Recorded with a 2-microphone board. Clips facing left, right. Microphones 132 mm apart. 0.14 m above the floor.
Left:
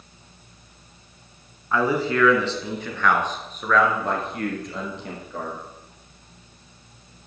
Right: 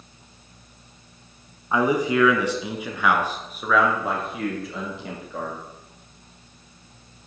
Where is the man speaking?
15° right (ahead or behind), 1.3 m; by 5.6 s centre (ahead or behind), 3 m.